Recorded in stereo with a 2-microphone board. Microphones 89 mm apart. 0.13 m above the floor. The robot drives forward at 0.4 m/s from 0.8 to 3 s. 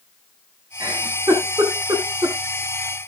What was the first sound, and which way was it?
A giggle, 35° right (ahead or behind).